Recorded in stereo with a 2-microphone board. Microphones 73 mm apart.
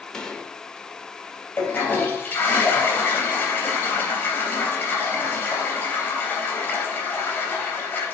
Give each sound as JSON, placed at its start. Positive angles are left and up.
{"t": 0.1, "sound": "a gunshot", "side_deg": 10, "distance_m": 1.0}
{"t": 1.6, "sound": "a toilet flushing", "side_deg": 25, "distance_m": 3.0}